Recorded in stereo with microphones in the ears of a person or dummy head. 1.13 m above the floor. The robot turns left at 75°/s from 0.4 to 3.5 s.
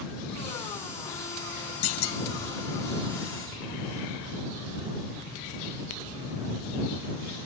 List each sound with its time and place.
1.8 s a clunk: 95° left; by 2.2 s 65° left